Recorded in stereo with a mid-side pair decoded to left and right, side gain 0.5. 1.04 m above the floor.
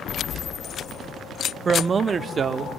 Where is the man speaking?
35° right, 1.0 m; by 2.7 s 40° right, 2.5 m.